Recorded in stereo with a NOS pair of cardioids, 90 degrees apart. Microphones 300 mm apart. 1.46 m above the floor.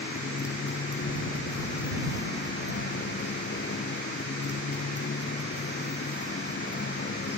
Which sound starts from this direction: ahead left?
A motorcycle, at 0.0 s.